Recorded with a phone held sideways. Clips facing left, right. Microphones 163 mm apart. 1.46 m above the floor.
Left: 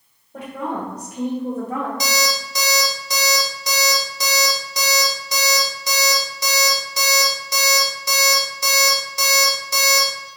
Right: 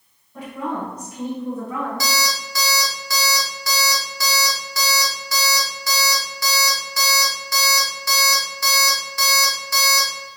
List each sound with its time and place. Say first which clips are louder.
0.3 s a woman speaking: even; 75° left (ahead or behind), 1.9 m; by 1.9 s 40° left (ahead or behind), 1.1 m
2.0 s an alarm clock: left 2 dB; 20° left (ahead or behind), 1.2 m